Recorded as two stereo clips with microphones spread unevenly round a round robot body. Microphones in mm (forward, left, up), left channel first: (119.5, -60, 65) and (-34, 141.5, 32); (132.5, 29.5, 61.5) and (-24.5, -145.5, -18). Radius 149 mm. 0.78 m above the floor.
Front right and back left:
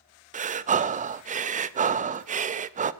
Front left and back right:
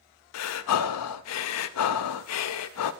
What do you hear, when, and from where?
0.3 s breathing: 80° left, 0.5 m